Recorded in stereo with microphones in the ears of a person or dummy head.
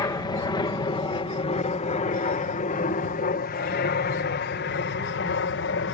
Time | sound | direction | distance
0.0 | an aircraft | 15° left (ahead or behind) | ?